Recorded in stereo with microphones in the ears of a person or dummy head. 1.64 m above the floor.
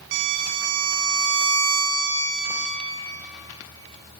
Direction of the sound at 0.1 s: 70° right (ahead or behind).